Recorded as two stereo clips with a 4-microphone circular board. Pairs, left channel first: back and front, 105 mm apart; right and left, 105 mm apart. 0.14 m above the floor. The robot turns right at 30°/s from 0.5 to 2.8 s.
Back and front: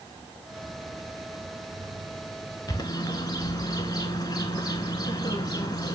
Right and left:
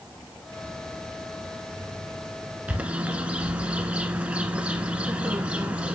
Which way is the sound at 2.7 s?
160° left.